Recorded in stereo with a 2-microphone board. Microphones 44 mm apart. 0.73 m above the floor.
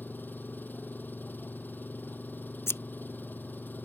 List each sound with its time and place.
0.0 s an engine running: 45° left (ahead or behind)
2.7 s scissors: 90° left